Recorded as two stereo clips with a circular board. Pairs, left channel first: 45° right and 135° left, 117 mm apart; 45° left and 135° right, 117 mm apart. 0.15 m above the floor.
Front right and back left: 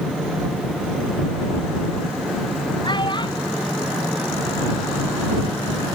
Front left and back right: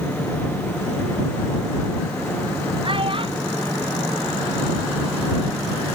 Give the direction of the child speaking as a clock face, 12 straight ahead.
3 o'clock.